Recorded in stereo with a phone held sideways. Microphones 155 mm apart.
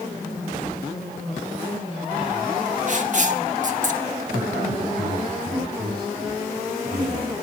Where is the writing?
55° right (ahead or behind), 1.6 m.